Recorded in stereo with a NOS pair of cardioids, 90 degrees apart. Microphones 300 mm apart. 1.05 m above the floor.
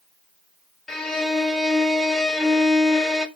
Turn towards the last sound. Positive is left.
turn(degrees=0)